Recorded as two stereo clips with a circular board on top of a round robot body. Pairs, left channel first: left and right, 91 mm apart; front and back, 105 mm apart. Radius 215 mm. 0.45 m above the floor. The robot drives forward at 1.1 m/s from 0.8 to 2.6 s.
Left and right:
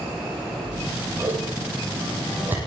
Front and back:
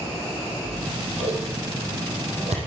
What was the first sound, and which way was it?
Scissors, 155° right.